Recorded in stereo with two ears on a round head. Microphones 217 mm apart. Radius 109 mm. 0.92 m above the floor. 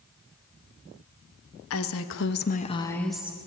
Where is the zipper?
No zipper in this recording.